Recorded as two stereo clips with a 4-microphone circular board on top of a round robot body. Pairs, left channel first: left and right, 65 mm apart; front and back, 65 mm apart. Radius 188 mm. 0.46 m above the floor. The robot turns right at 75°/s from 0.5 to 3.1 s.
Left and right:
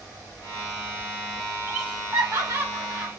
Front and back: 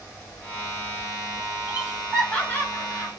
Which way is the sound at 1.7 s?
120° right.